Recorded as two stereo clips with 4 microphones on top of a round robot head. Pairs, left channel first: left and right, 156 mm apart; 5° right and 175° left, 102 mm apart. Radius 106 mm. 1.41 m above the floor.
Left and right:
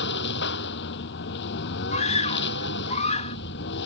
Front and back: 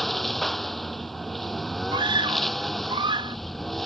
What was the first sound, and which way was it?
A lawn mower, 85° left.